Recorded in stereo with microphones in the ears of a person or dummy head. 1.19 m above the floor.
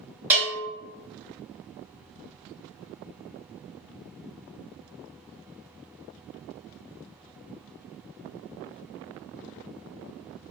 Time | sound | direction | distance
0.3 | a bell | 10° right (ahead or behind) | 1.7 m